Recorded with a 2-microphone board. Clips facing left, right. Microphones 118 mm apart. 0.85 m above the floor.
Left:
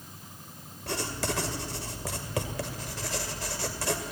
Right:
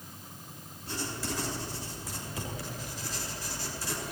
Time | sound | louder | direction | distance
0.9 | writing | left 4 dB | 75° left (ahead or behind) | 2.5 m